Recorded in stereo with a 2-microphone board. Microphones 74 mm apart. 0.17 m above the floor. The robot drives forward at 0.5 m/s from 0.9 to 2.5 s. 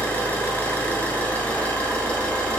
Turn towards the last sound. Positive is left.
turn(degrees=15)  # may be behind; listen again after turning